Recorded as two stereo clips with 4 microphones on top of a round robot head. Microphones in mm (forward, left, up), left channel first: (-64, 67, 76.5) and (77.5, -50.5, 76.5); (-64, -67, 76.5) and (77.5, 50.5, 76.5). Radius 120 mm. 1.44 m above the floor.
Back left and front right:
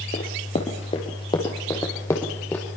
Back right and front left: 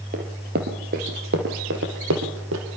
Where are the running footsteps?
90° left, 3.5 m; by 2.6 s 60° left, 3.5 m.